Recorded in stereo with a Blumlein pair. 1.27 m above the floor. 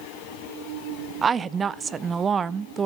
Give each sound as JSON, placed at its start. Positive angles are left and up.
{"t": 1.2, "sound": "a woman speaking", "azimuth_deg": -20, "distance_m": 0.5}